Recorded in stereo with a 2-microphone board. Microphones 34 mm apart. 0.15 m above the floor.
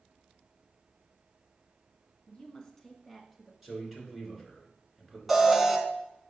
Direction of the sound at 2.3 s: 35° left (ahead or behind).